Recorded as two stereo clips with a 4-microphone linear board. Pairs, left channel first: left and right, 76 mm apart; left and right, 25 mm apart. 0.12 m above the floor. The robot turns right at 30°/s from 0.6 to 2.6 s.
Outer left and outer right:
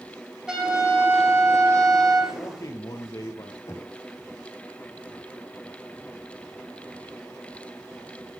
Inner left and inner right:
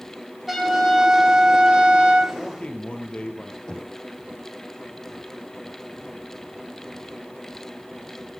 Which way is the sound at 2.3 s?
45° left (ahead or behind).